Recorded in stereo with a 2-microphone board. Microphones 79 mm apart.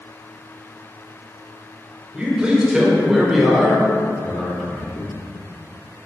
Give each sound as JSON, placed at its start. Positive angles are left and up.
{"t": 2.1, "sound": "a man speaking", "side_deg": -15, "distance_m": 1.7}